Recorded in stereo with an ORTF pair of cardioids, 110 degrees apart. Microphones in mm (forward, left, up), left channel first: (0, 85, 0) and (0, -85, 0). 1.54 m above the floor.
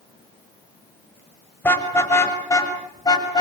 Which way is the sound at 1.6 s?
15° left.